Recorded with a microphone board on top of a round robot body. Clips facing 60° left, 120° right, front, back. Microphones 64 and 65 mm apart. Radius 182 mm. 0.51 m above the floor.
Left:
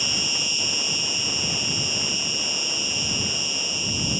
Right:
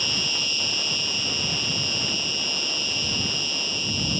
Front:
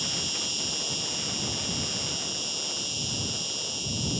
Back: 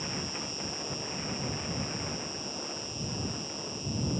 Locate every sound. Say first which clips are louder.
0.0 s an insect: even, front 1 dB; 15° right